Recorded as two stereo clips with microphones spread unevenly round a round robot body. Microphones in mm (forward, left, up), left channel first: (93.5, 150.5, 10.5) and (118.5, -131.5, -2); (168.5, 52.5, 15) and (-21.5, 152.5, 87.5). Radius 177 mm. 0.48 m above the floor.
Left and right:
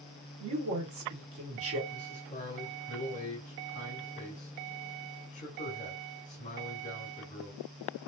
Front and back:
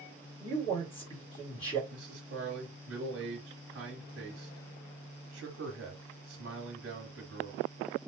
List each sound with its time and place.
0.4 s a man speaking: 70° right, 1.9 m
1.9 s a man speaking: 150° left, 1.4 m